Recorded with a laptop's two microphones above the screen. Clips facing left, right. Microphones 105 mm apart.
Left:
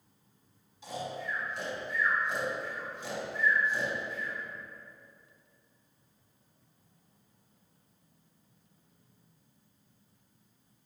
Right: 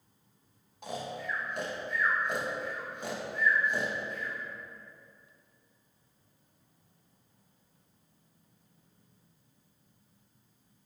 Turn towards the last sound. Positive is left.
turn(degrees=-60)  # may be behind; listen again after turning